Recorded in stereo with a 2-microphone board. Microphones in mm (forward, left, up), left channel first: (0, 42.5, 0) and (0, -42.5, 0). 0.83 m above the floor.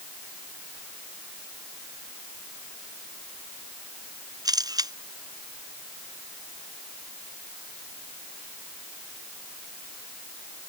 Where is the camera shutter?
50° right (ahead or behind).